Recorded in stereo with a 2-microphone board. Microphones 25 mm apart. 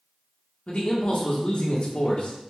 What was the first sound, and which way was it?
A man speaking, 55° left (ahead or behind).